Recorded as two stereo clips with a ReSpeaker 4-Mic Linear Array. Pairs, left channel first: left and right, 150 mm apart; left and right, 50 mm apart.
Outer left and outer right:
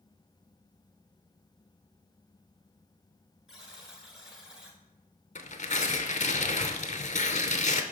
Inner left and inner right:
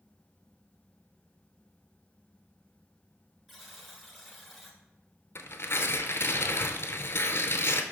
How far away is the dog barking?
No dog barking in this recording.